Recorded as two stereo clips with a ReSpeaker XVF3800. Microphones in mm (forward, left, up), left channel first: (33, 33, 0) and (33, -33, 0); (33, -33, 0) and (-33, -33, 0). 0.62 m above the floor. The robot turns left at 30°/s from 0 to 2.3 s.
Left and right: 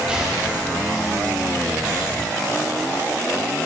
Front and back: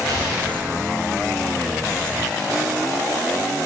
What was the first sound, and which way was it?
An explosion, 165° right.